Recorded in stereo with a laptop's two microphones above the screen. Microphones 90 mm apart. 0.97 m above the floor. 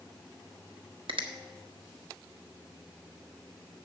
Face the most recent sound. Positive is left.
turn(degrees=-80)